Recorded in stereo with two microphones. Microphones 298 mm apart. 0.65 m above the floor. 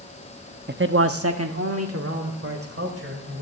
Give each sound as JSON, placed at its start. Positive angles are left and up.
{"t": 0.7, "sound": "a man speaking", "side_deg": -30, "distance_m": 0.6}